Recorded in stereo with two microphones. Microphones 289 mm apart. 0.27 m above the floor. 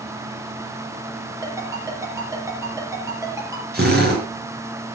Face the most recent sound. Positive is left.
turn(degrees=-35)  # may be behind; listen again after turning